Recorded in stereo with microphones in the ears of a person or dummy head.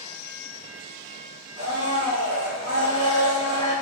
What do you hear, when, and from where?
1.6 s a blender: 40° right (ahead or behind), 1.7 m